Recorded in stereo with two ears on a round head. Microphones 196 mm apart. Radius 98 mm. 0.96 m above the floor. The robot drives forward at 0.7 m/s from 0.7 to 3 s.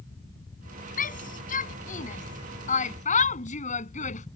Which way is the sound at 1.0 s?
40° left (ahead or behind).